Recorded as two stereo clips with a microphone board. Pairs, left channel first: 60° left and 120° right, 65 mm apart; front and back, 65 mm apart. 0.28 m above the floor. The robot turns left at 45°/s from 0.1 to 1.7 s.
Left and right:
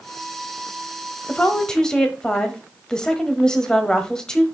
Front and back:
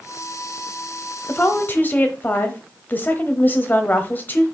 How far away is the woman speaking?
About 1.0 m.